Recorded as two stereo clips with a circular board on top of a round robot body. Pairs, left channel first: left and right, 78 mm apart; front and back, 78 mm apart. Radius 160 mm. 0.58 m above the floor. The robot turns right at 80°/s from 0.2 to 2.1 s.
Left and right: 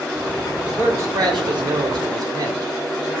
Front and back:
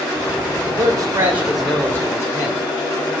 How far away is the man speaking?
About 2 m.